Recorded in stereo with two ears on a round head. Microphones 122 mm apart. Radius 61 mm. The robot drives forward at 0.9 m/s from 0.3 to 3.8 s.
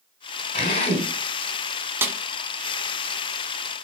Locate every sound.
0.5 s a drill: 45° left (ahead or behind), 2.5 m; by 1.1 s 55° left (ahead or behind), 2.5 m
2.0 s a snare drum: 15° right (ahead or behind), 1.5 m